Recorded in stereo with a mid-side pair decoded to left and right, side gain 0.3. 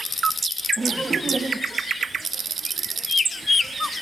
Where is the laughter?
10° right, 1.9 m; by 1.8 s 35° right, 1.0 m.